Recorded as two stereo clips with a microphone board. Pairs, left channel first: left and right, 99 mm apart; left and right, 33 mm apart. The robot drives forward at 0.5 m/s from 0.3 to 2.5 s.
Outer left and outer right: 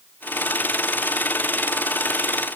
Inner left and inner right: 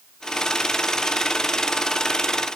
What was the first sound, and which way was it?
Only background noise.